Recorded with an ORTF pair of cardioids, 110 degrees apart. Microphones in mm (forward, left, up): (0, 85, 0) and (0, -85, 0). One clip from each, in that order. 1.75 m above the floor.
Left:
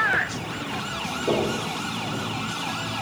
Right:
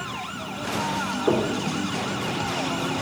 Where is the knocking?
35° right, 3.5 m.